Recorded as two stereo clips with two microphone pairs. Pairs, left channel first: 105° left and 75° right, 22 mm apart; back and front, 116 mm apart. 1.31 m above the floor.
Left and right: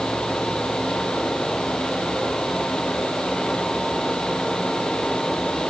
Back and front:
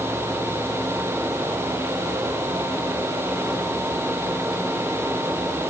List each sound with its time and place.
Only background noise.